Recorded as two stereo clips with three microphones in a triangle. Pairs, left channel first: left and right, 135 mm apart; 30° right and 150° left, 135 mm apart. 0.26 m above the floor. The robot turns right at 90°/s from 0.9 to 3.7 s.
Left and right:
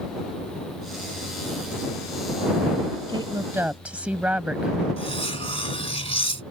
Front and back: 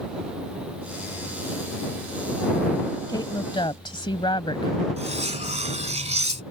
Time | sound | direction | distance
3.1 | a woman speaking | 70° right | ?
5.0 | cutlery clinking | 130° left | ?